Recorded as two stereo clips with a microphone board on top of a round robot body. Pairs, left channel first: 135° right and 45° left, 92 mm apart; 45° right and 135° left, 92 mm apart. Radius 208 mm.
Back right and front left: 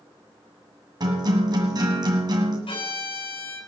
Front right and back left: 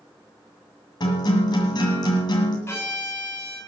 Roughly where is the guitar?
Ahead.